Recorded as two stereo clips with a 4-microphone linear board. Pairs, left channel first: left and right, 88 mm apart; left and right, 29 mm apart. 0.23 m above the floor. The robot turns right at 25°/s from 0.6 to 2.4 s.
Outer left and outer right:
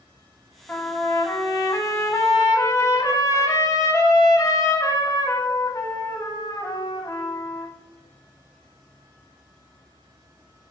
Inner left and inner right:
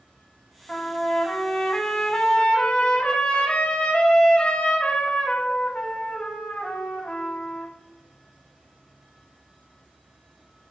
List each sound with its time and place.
0.7 s a trumpet: 30° left, 0.6 m; by 7.7 s 70° left, 0.6 m